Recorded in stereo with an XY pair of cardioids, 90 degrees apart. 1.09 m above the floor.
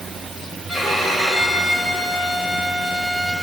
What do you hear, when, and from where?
0.7 s a violin: 15° left, 3 m